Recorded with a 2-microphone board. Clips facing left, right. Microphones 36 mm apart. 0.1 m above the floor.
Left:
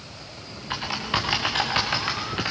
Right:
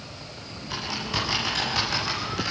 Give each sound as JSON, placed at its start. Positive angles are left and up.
{"t": 0.7, "sound": "typing on a keyboard", "side_deg": 30, "distance_m": 4.5}